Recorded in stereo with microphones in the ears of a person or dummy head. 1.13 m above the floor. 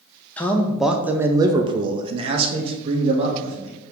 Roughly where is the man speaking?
Centre.